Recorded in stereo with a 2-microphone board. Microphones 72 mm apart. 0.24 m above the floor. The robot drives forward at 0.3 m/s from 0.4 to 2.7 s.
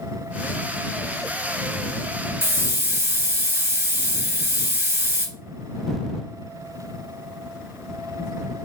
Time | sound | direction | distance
2.4 | a hiss | 35° right (ahead or behind) | 1.0 m